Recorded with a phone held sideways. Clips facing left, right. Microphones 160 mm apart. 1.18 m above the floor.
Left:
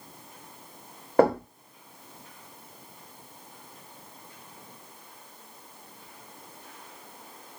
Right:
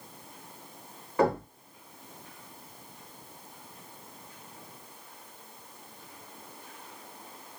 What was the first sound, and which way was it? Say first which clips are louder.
Knocking: left 5 dB; 55° left (ahead or behind).